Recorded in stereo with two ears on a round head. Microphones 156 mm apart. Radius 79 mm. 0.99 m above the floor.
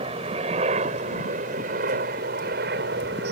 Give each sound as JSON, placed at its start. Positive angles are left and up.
{"t": 0.0, "sound": "a helicopter", "side_deg": -35}